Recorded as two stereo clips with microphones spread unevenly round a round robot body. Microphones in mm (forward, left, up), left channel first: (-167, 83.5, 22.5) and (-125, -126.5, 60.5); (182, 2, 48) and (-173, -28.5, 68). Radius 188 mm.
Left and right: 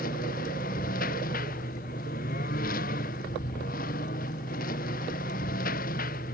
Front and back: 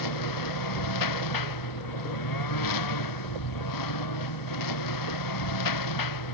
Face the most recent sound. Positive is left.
turn(degrees=35)